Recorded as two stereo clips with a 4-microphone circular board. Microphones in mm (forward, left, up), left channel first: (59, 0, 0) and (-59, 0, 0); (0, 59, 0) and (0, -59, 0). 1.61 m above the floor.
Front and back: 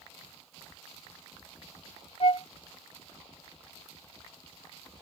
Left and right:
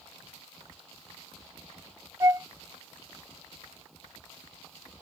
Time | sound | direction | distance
2.2 | a flute | 30° right | ?